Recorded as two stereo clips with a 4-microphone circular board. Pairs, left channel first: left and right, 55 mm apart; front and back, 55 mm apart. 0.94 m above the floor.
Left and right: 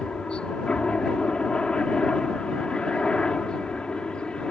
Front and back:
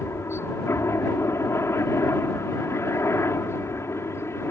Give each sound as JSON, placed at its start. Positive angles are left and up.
{"t": 0.0, "sound": "a helicopter", "azimuth_deg": 20}